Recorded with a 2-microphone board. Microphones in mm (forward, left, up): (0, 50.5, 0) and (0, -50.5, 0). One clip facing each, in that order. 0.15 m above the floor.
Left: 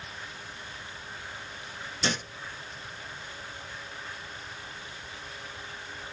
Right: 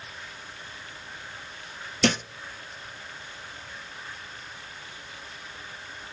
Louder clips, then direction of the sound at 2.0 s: Right 7 dB; 65° right (ahead or behind).